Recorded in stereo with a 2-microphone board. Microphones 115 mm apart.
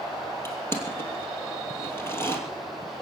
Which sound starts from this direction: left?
Crushing, at 0.5 s.